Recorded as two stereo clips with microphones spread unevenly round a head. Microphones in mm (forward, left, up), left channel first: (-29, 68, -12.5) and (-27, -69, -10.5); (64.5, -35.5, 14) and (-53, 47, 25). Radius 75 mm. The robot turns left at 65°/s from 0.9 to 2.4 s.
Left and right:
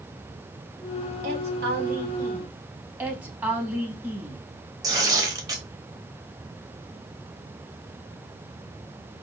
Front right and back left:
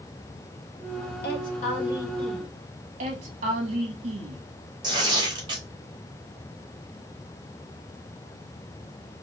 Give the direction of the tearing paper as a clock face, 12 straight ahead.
5 o'clock.